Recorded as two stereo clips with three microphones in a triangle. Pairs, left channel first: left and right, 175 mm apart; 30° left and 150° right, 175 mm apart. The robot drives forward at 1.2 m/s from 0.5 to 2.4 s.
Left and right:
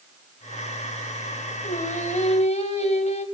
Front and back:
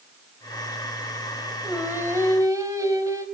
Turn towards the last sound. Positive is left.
turn(degrees=140)